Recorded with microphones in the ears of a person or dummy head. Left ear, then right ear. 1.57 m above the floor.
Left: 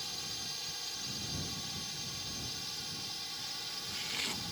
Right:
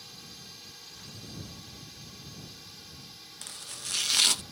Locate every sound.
0.0 s a drone: 25° left (ahead or behind)
3.4 s chopping: 55° right (ahead or behind)